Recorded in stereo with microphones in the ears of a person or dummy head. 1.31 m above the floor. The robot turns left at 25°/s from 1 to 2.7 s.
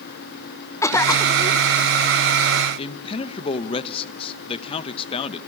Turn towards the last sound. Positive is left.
turn(degrees=35)  # may be behind; listen again after turning